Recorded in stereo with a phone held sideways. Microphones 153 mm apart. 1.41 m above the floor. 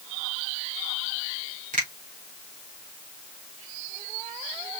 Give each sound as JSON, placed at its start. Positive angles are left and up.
{"t": 1.7, "sound": "a finger snap", "side_deg": -65, "distance_m": 4.5}